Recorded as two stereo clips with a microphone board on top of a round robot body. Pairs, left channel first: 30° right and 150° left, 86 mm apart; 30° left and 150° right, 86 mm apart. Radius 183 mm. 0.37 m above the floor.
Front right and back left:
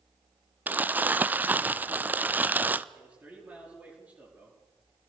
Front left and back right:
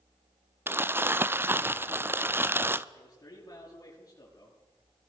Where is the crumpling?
165° right, 0.9 m.